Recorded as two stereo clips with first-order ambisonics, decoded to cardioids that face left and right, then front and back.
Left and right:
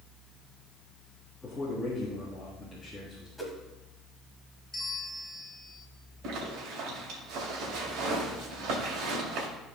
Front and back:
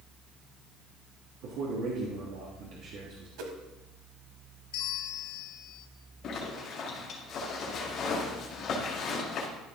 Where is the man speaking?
170° left, 1.6 m.